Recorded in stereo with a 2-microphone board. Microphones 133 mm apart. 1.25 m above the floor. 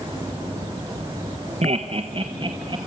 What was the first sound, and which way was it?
Laughter, 55° right (ahead or behind).